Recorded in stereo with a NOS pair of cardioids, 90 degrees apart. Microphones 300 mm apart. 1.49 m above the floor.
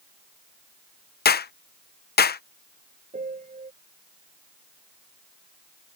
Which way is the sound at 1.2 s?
30° left.